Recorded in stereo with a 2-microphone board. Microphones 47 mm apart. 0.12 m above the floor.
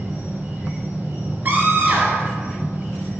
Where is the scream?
40° right (ahead or behind), 1.5 m.